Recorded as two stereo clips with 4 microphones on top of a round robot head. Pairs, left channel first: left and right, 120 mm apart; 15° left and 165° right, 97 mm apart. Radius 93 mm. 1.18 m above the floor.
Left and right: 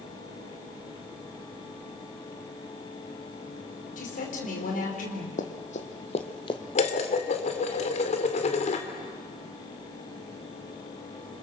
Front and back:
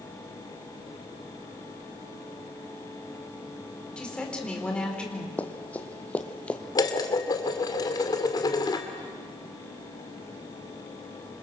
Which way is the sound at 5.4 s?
85° left.